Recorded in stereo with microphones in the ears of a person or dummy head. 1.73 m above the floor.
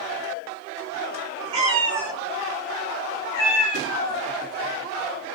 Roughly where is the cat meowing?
Right.